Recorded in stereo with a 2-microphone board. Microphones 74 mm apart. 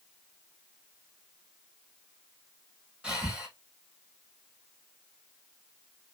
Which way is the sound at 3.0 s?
10° right (ahead or behind).